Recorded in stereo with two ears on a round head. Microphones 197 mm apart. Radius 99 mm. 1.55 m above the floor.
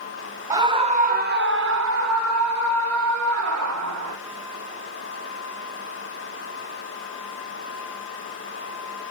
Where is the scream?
15° right (ahead or behind), 1.8 m; by 4.2 s 80° right, 5 m.